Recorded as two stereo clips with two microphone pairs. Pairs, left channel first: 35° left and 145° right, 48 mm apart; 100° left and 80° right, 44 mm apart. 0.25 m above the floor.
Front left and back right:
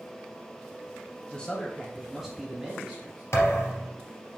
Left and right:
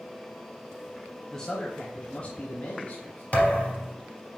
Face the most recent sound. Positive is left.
turn(degrees=50)